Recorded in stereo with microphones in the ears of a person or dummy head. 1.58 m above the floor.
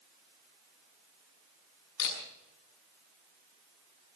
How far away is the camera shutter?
About 6 m.